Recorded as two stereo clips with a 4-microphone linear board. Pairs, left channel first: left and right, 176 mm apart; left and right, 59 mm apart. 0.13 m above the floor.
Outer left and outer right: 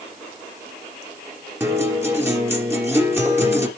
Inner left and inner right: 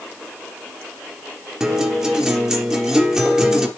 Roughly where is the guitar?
Centre.